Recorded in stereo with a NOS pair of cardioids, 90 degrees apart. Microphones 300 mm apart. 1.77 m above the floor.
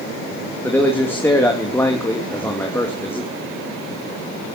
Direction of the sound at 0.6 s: 5° left.